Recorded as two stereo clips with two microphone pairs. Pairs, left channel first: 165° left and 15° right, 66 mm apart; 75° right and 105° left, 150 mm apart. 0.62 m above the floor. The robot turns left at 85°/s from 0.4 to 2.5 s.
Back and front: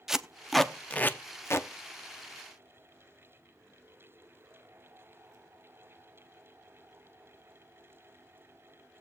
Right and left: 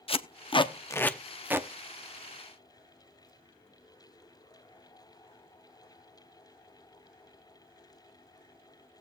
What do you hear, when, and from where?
0.1 s tape being pulled: 90° right, 0.7 m; by 1.7 s 160° left, 0.7 m